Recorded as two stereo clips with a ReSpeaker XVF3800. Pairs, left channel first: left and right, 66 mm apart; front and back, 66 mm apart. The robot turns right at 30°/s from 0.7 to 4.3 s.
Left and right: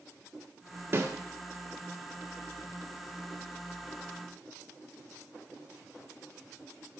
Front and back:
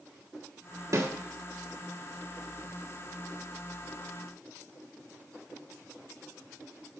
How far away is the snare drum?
About 1.3 m.